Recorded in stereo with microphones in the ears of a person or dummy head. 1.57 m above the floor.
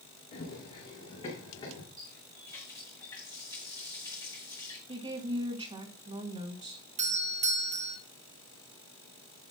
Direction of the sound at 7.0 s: 25° right (ahead or behind).